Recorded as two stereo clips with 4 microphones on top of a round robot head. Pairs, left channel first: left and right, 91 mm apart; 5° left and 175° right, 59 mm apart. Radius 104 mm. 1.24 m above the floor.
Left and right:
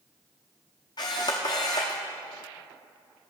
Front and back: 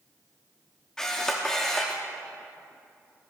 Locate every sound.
1.0 s a camera shutter: 75° left, 0.8 m